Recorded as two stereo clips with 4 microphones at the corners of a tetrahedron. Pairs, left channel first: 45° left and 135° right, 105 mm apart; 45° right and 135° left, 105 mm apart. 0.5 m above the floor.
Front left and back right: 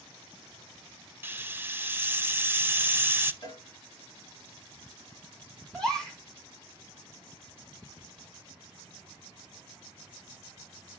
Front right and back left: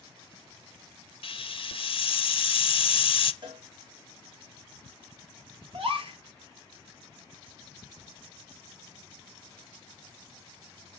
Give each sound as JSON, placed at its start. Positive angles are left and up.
{"t": 1.2, "sound": "a hiss", "azimuth_deg": -65, "distance_m": 0.5}
{"t": 3.4, "sound": "a cowbell", "azimuth_deg": 95, "distance_m": 1.9}
{"t": 5.7, "sound": "a gasp", "azimuth_deg": 130, "distance_m": 1.6}